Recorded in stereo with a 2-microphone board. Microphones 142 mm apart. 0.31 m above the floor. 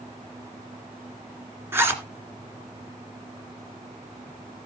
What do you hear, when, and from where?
1.7 s a zipper: 15° right (ahead or behind), 2 m